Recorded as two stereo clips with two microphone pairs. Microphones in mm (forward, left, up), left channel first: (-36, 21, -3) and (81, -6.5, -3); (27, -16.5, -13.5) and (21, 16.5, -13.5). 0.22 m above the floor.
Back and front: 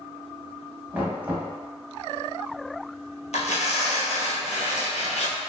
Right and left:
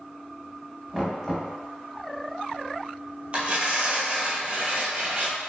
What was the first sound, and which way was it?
Knocking, 35° left.